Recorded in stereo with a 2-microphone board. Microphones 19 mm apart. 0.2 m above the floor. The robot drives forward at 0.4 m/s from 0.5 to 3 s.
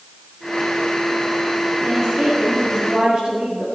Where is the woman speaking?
75° right (ahead or behind), 3.5 m.